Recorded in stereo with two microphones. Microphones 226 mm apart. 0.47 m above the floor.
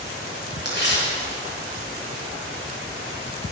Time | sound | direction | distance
0.7 | tearing paper | 50° left (ahead or behind) | 6 m